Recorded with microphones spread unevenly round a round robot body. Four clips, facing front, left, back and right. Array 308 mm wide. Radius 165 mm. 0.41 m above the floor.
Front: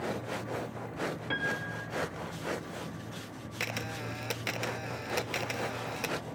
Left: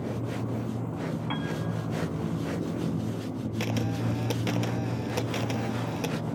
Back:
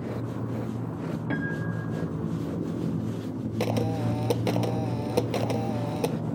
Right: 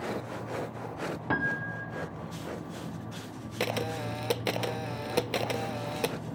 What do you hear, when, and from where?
0.0 s a motorcycle: 145° left; by 6.3 s 160° left
1.3 s a piano: 145° right
3.6 s a camera shutter: 160° right